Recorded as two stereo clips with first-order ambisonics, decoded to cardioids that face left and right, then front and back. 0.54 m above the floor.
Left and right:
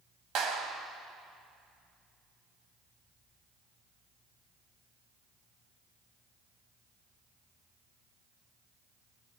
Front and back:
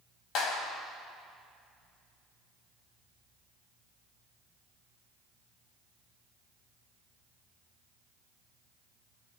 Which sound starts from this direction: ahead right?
A clap, at 0.3 s.